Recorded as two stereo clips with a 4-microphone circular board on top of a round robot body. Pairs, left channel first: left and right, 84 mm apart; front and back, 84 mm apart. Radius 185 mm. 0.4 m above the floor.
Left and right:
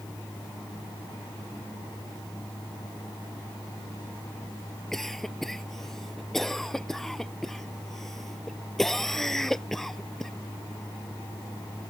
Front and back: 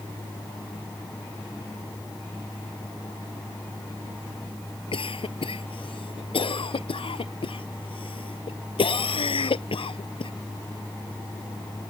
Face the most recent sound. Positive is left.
turn(degrees=5)